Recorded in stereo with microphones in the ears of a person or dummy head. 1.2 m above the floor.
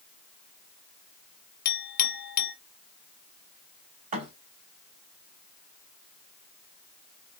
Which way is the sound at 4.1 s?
40° right (ahead or behind).